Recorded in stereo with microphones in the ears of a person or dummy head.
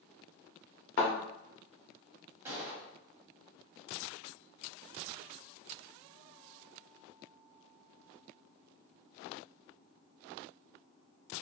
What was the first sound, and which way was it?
A thud, 50° left (ahead or behind).